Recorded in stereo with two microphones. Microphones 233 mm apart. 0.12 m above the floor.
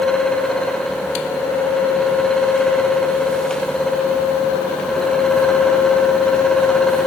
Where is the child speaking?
I don't hear a child speaking.